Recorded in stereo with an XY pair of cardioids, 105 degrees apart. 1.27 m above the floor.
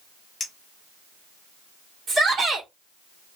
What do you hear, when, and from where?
0.4 s a clink: 35° left, 1.5 m
2.1 s a shout: 40° right, 1.8 m